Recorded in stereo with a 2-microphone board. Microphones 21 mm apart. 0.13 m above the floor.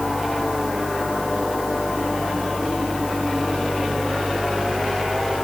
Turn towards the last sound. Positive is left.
No sound to turn to.